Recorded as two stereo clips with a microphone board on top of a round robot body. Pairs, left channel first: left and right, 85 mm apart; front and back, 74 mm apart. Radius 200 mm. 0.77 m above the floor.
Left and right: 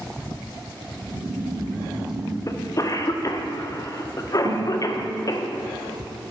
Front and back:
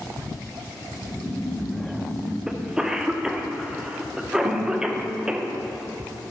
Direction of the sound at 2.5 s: 105° left.